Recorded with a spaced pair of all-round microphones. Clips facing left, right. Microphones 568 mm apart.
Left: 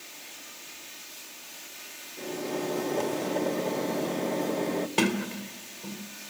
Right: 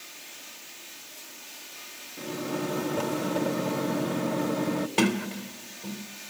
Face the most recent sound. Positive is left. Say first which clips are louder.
# right 2 dB
turn(degrees=0)  # may be behind; listen again after turning